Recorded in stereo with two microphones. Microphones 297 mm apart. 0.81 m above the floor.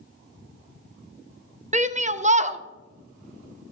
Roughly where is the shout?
Right.